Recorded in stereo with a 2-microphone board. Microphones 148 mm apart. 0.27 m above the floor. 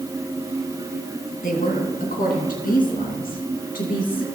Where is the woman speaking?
65° left (ahead or behind), 2.0 m; by 4.2 s 70° left (ahead or behind), 3.5 m.